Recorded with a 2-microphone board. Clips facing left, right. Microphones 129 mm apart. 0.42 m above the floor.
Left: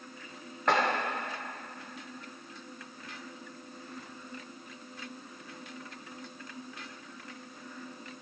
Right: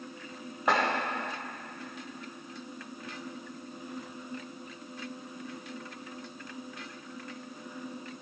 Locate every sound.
0.7 s chopping: 10° right (ahead or behind), 5.5 m